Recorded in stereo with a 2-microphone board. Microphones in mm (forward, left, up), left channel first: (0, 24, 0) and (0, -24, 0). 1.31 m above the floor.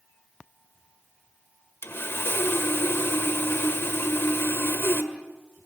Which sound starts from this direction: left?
Sawing, at 1.8 s.